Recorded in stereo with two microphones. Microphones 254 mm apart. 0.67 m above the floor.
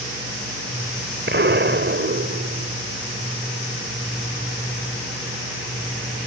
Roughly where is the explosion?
Right.